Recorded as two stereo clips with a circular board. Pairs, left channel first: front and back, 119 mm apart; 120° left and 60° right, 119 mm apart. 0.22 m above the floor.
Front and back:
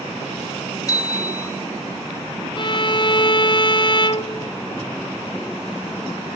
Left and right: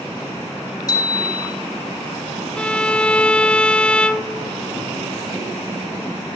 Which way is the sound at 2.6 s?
40° left.